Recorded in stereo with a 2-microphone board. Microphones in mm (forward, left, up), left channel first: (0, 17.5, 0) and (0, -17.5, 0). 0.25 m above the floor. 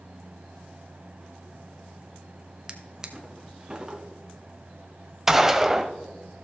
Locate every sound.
2.7 s a drawer: 20° right (ahead or behind), 1.1 m
5.3 s a gunshot: 10° right (ahead or behind), 0.6 m